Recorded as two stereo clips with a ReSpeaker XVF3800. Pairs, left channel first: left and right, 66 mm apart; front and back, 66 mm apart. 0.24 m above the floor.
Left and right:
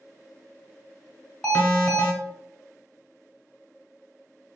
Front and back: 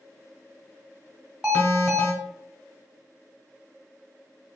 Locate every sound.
1.4 s an alarm: 135° left, 1.4 m